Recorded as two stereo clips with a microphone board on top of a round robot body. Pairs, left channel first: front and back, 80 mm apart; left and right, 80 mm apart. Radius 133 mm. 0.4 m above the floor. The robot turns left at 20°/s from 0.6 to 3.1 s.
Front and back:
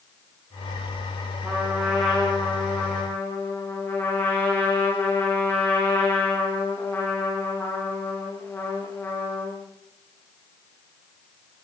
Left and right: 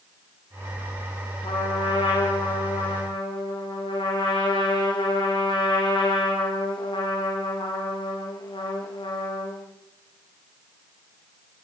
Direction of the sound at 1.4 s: 100° left.